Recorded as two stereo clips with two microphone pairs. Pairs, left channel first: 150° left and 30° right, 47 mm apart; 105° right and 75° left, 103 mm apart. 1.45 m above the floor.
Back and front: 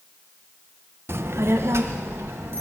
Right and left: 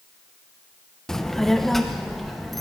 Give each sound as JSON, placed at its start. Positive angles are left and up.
{"t": 1.1, "sound": "a child speaking", "azimuth_deg": -25, "distance_m": 0.6}